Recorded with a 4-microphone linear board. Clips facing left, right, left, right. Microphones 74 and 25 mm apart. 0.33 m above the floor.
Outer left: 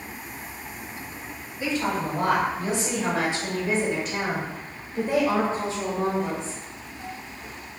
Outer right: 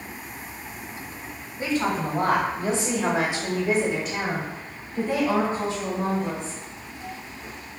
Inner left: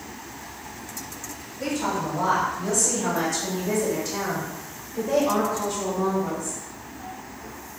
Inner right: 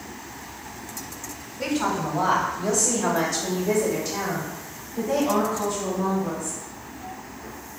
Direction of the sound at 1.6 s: 40° right (ahead or behind).